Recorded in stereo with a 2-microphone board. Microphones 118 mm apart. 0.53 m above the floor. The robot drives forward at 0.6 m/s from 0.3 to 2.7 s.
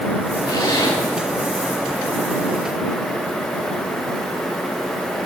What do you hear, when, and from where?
0.5 s a zipper: 35° left (ahead or behind), 8 m